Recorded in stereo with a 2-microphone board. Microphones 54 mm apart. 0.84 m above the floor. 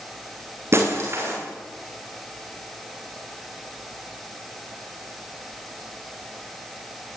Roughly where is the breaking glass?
Right.